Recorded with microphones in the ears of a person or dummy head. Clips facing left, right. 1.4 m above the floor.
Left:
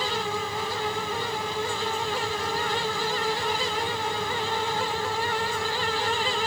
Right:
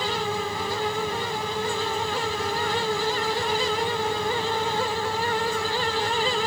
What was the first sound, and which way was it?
Only background noise.